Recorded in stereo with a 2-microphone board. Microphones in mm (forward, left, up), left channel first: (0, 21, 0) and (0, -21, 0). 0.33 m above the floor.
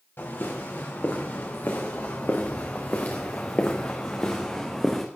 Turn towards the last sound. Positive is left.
turn(degrees=10)  # may be behind; listen again after turning